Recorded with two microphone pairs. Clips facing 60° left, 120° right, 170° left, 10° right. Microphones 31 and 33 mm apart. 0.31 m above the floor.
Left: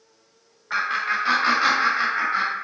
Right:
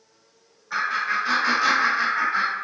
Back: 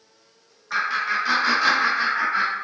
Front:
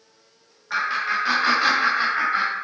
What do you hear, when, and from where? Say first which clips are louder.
0.7 s laughter: even, even; 55° left, 1.3 m; by 2.6 s 15° right, 1.2 m